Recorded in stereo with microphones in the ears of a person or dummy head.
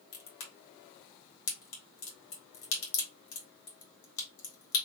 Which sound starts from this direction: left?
A crack, at 0.1 s.